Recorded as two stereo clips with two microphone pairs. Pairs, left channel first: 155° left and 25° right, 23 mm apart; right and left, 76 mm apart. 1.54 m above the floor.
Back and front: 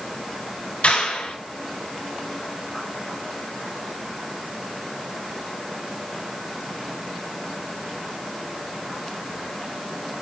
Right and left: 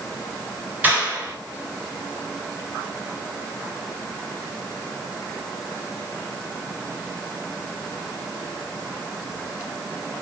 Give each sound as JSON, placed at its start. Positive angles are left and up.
{"t": 0.8, "sound": "a clap", "azimuth_deg": 155, "distance_m": 8.0}